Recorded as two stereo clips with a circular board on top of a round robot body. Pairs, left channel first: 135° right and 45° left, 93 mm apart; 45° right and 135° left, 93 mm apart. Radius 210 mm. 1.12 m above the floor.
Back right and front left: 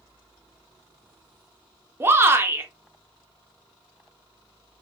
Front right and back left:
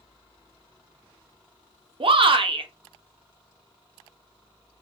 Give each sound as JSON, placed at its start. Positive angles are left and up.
{"t": 2.0, "sound": "a shout", "azimuth_deg": 110, "distance_m": 0.7}